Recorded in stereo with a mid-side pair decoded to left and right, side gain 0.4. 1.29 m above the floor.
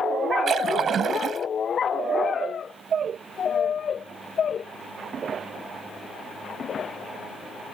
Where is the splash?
60° right.